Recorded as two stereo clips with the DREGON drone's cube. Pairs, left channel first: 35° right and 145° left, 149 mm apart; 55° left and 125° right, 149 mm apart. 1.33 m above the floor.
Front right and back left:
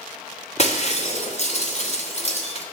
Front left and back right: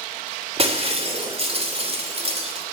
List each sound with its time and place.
0.6 s breaking glass: 75° right, 3 m